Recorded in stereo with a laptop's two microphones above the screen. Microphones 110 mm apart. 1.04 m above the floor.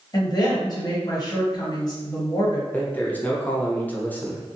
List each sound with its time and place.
0.1 s a woman speaking: 35° left (ahead or behind), 0.9 m
2.7 s a man speaking: 15° left (ahead or behind), 0.6 m